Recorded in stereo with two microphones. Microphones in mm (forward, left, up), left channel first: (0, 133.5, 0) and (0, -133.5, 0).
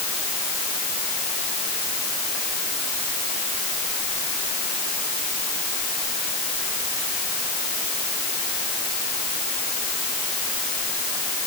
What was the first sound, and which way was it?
Only background noise.